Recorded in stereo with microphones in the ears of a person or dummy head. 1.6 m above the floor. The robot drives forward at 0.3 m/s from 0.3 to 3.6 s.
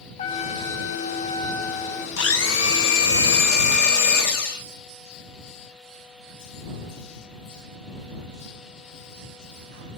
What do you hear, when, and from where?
0.2 s a trumpet: 40° left (ahead or behind), 0.6 m; by 2.1 s 20° left (ahead or behind), 1.1 m
2.2 s a blender: 85° left, 1.0 m; by 4.7 s 65° left (ahead or behind), 1.1 m